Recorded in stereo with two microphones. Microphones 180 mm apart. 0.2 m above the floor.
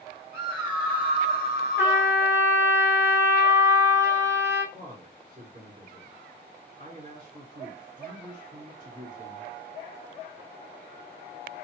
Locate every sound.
0.3 s a scream: 20° right (ahead or behind), 2.5 m; by 2.2 s 45° right (ahead or behind), 2.0 m
1.8 s a trumpet: 15° right (ahead or behind), 0.9 m
4.7 s a man speaking: 45° right (ahead or behind), 3 m